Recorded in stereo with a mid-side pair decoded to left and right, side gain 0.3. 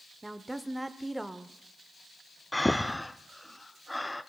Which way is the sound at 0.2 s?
15° right.